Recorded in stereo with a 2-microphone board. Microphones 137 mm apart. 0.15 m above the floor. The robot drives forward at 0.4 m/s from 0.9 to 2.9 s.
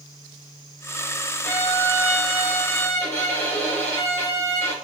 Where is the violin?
15° left (ahead or behind), 1.7 m.